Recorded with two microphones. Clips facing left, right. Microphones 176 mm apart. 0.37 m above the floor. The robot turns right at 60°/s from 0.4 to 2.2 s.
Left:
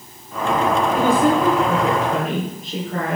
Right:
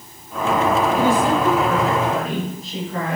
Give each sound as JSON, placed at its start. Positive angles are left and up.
{"t": 0.9, "sound": "a woman speaking", "azimuth_deg": 50, "distance_m": 8.0}